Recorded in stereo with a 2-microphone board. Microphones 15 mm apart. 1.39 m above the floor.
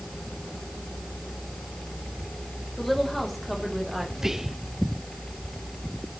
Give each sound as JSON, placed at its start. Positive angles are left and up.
{"t": 2.8, "sound": "a woman speaking", "side_deg": 10, "distance_m": 3.0}
{"t": 4.2, "sound": "whispering", "side_deg": -25, "distance_m": 0.6}